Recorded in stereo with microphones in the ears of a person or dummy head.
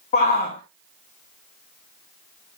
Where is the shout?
40° left (ahead or behind), 1.8 m.